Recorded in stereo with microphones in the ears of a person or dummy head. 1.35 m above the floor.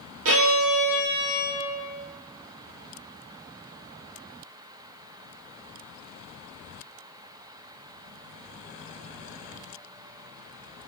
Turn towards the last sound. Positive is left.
turn(degrees=-70)  # may be behind; listen again after turning